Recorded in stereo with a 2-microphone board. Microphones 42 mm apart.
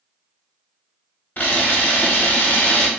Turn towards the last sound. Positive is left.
turn(degrees=40)  # may be behind; listen again after turning